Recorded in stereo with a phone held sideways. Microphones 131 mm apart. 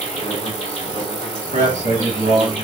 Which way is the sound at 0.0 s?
75° left (ahead or behind).